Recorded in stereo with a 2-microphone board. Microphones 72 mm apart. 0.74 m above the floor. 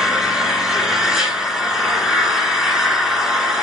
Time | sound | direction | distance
0.0 | an engine running | 10° right (ahead or behind) | 2.5 m